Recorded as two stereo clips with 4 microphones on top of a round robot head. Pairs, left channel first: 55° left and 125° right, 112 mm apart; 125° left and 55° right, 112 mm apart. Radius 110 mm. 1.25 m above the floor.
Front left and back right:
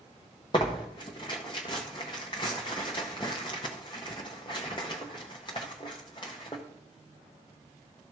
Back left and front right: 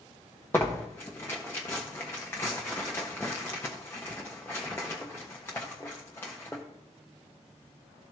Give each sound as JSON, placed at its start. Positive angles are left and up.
{"t": 0.5, "sound": "tearing paper", "azimuth_deg": 65, "distance_m": 0.5}